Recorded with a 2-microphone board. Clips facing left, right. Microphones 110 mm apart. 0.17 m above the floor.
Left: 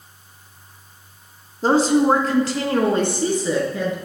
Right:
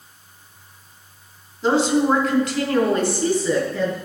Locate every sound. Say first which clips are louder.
1.6 s a woman speaking: left 2 dB; 40° left (ahead or behind), 1.3 m; by 4.0 s 15° left (ahead or behind), 2.0 m